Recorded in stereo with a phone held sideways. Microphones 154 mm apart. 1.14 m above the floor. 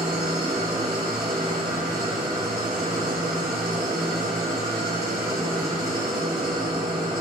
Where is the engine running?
90° right, 3.5 m.